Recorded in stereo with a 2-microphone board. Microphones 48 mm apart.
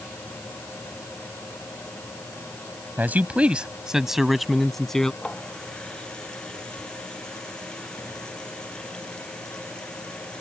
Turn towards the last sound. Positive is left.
turn(degrees=15)  # may be behind; listen again after turning